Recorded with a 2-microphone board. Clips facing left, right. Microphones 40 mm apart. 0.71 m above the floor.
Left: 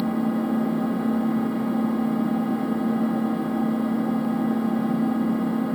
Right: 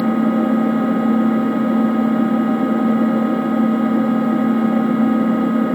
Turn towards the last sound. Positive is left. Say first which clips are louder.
# right 8 dB
turn(degrees=-50)  # may be behind; listen again after turning